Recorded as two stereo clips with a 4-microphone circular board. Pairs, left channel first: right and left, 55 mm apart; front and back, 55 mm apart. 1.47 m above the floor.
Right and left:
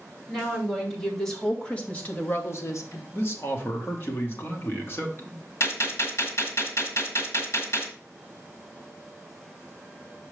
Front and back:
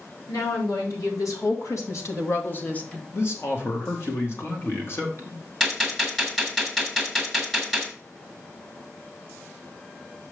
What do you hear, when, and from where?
0.3 s a woman speaking: straight ahead, 3 m; by 3.0 s 75° right, 1.2 m
3.1 s a man speaking: 40° right, 1.8 m
5.6 s a gunshot: 85° right, 1.6 m